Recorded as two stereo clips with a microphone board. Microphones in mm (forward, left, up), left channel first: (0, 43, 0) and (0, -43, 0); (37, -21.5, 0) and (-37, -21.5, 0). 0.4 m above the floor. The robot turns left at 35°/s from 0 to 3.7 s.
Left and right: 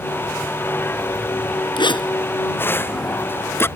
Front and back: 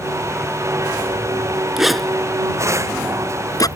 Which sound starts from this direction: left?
A zipper, at 1.8 s.